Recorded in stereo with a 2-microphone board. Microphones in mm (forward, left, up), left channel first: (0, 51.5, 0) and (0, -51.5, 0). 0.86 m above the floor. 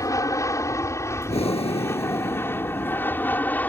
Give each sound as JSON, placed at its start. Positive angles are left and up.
{"t": 0.0, "sound": "an aircraft", "side_deg": 30}
{"t": 1.3, "sound": "breathing", "side_deg": 80}